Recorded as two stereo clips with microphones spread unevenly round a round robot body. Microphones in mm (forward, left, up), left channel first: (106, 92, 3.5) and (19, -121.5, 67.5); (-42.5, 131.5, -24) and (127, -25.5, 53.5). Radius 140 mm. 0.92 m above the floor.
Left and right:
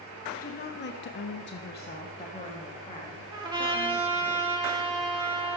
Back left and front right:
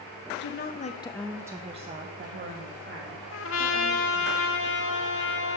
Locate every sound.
0.4 s a woman speaking: 115° left, 0.6 m; by 4.3 s 5° right, 1.8 m
3.3 s a trumpet: 170° right, 0.5 m